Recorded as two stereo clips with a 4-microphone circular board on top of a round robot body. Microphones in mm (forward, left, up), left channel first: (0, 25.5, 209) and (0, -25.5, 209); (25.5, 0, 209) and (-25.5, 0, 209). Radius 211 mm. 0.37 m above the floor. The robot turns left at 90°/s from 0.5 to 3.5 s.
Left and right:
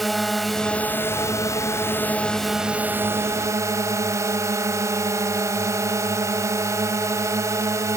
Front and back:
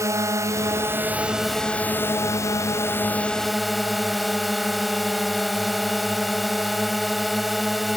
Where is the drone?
Straight behind; by 8.0 s 90° right.